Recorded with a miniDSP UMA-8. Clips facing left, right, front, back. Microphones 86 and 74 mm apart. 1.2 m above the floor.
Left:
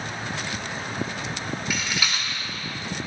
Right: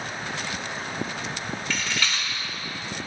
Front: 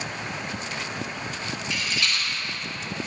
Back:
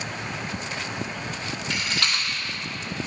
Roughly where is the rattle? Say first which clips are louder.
Right 1 dB, back 1 dB; behind.